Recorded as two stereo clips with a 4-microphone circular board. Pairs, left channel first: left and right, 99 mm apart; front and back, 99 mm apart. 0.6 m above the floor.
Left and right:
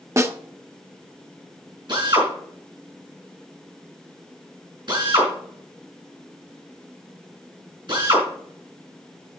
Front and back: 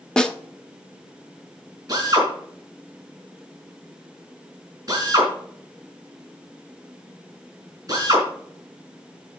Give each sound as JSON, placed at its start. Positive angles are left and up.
{"t": 0.2, "sound": "a snare drum", "azimuth_deg": -75, "distance_m": 0.9}
{"t": 1.9, "sound": "a drill", "azimuth_deg": -130, "distance_m": 4.5}